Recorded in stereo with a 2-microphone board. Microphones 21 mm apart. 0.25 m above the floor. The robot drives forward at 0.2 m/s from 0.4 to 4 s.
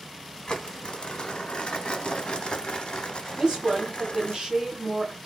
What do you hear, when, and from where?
0.5 s crumpling: 50° left (ahead or behind), 0.8 m
3.4 s a woman speaking: 35° right (ahead or behind), 1.2 m